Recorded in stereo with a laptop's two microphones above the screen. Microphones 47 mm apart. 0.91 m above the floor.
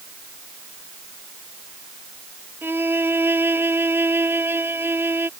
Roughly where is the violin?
Right.